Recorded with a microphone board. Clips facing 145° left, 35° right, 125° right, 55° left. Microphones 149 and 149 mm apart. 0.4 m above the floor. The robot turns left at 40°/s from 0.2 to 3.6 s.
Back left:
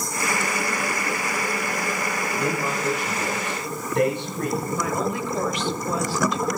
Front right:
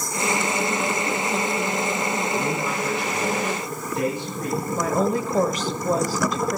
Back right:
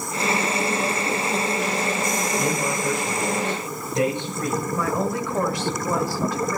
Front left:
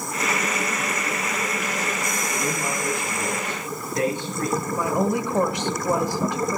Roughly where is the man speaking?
Behind right.